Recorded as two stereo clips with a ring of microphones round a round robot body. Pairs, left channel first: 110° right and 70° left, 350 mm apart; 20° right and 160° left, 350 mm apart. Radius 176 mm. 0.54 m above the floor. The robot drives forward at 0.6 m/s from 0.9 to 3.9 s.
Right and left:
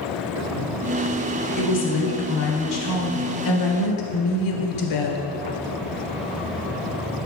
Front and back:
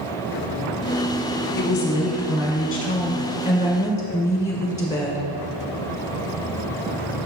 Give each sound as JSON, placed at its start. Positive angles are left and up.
{"t": 1.6, "sound": "a woman speaking", "azimuth_deg": -55, "distance_m": 2.0}